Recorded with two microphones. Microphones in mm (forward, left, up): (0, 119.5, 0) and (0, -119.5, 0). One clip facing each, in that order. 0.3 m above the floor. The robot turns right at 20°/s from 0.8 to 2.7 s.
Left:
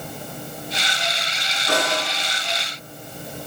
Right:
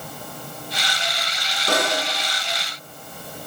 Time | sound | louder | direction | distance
1.7 | a snare drum | even | 45° right (ahead or behind) | 2.5 m